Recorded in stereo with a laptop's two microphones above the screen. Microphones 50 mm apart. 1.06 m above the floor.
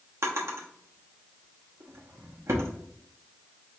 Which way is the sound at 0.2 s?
65° right (ahead or behind).